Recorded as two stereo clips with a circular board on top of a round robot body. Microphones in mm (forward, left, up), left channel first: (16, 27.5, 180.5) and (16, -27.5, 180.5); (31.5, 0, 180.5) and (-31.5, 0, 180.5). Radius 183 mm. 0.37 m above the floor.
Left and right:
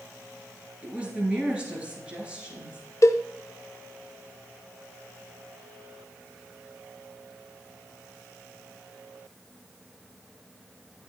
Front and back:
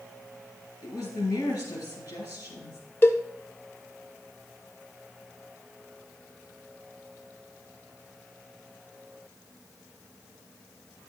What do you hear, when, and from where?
0.8 s a woman speaking: 25° right, 5 m
3.0 s a cowbell: 55° left, 0.8 m